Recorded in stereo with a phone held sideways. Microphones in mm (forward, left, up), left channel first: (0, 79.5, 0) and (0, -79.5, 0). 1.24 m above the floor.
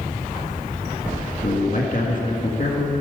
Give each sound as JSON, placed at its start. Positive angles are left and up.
{"t": 1.4, "sound": "a man speaking", "side_deg": 55, "distance_m": 1.4}